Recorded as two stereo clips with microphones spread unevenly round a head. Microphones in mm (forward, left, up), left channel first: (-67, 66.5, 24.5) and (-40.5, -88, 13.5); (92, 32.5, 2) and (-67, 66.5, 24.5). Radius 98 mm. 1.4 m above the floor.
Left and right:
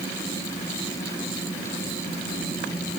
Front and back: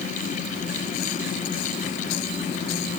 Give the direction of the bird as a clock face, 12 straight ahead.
I don't hear a bird.